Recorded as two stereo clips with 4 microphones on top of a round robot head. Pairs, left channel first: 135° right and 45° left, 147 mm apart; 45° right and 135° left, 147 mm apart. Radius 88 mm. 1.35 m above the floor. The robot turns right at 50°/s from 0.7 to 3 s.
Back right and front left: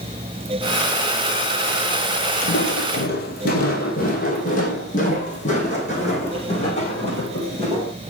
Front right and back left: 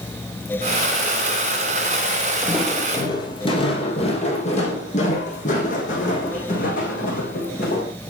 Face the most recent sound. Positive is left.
turn(degrees=-80)